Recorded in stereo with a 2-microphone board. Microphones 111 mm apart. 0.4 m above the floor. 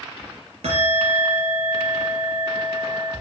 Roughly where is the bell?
Right.